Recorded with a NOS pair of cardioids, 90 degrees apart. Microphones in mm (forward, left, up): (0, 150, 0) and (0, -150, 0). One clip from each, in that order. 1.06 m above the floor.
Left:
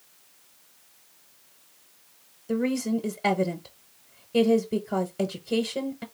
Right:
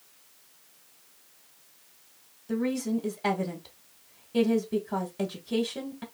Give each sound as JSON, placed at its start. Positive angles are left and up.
{"t": 2.5, "sound": "a woman speaking", "azimuth_deg": 20, "distance_m": 0.9}